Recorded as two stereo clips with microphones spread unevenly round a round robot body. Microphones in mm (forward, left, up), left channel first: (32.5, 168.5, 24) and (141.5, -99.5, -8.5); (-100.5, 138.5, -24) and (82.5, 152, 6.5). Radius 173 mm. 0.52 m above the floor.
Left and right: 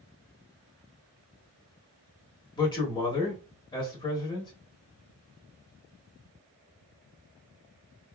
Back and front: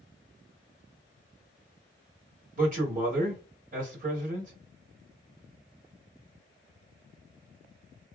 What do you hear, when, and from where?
2.6 s a man speaking: 40° left, 1.1 m